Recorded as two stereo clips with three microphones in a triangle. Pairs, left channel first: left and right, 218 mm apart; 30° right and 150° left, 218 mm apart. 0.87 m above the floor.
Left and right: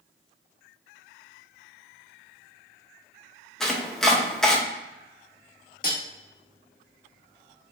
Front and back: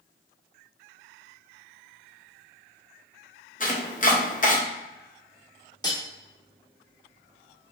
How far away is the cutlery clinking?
About 1.0 m.